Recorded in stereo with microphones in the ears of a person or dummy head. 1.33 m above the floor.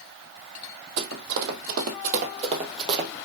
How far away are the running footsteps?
About 3 m.